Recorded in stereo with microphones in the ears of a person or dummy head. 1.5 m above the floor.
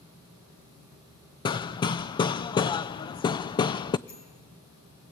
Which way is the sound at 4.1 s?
75° left (ahead or behind).